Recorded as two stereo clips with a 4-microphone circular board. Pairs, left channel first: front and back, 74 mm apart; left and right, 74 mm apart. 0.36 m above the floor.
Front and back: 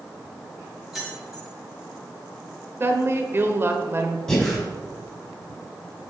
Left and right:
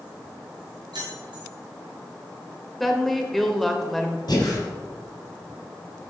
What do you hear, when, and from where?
0.9 s keys jangling: 95° right, 3 m
2.8 s a woman speaking: 175° left, 0.9 m
4.3 s breathing: 80° left, 2.5 m